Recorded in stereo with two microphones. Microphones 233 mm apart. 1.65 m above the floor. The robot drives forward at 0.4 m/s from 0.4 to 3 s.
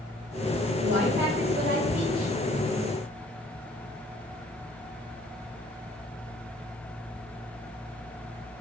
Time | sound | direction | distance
0.8 | a woman speaking | 45° right (ahead or behind) | 1.8 m